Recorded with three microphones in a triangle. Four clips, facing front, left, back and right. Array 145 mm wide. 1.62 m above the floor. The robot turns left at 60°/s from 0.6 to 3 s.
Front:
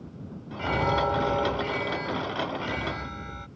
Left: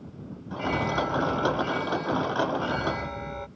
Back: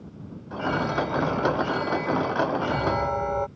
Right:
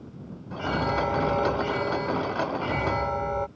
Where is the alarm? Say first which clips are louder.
Right 1 dB, even; 10° right; by 3.5 s 150° right.